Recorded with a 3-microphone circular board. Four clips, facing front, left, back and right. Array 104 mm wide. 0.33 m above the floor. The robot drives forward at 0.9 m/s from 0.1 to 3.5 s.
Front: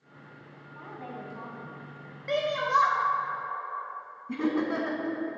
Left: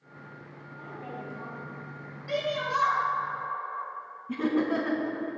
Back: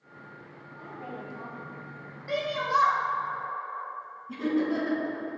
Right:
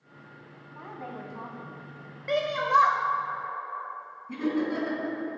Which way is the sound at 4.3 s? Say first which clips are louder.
Left 1 dB, back 1 dB; 35° left.